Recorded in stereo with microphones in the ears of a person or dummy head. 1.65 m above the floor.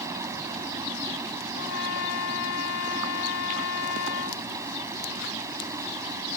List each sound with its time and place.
0.0 s running water: 10° right (ahead or behind)
1.5 s a trumpet: 70° left (ahead or behind)